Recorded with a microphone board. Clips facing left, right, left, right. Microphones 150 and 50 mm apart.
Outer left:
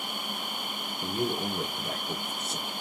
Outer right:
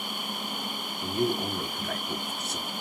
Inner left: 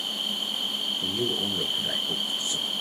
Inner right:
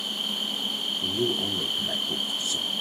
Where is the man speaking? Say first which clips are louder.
Outer right 3 dB, inner right 2 dB; 30° left (ahead or behind), 2.5 m.